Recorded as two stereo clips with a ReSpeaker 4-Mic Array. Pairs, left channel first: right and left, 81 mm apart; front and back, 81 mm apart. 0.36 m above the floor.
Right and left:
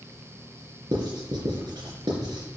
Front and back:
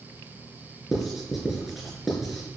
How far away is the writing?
About 3.5 m.